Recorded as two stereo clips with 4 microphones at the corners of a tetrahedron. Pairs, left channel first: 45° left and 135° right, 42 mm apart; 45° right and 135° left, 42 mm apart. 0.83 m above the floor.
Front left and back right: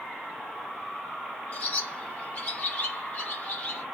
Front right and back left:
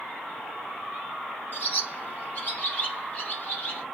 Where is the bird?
5° right, 0.9 m.